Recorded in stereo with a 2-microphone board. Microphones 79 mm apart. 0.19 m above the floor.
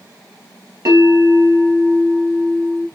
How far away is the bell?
About 2.5 m.